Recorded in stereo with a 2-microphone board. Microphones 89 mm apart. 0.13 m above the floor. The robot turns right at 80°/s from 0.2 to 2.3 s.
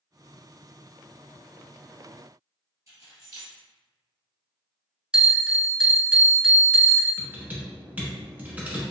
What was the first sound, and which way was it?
Keys jangling, 40° right (ahead or behind).